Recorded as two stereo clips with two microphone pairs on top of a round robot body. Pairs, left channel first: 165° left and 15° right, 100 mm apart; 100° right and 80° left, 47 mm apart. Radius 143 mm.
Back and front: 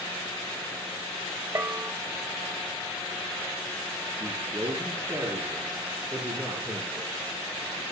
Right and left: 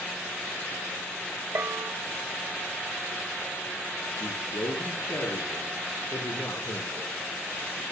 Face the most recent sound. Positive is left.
turn(degrees=-85)